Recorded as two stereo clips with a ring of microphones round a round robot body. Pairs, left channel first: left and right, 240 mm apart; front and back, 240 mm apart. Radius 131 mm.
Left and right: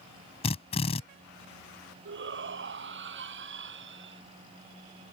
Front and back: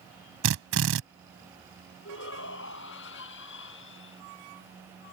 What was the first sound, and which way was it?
A drill, 155° left.